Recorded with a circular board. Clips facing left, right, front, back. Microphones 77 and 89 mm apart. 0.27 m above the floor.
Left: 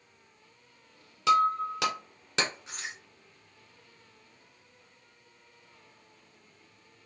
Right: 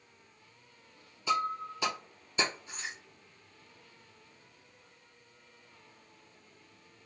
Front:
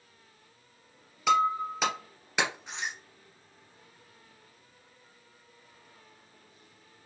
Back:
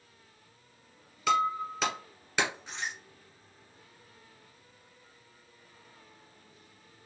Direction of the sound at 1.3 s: 85° left.